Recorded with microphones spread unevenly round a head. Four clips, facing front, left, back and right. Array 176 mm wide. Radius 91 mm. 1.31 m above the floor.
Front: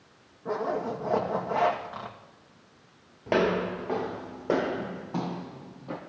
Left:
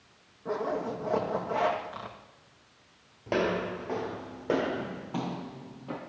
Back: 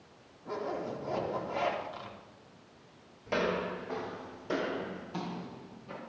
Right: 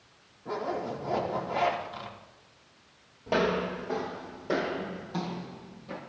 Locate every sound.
0.5 s a zipper: 25° left, 2 m
3.3 s footsteps: 5° left, 1.8 m; by 6.0 s 40° left, 3 m